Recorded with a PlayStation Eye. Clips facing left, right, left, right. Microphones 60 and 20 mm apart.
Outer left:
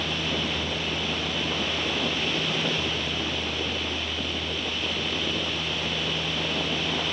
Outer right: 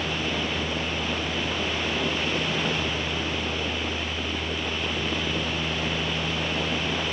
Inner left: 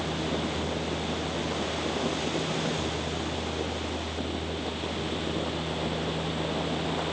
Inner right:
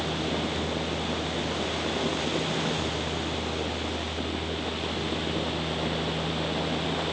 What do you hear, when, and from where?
Only background noise.